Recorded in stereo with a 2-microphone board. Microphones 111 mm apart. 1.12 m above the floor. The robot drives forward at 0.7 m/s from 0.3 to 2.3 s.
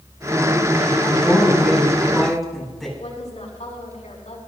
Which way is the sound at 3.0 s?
85° left.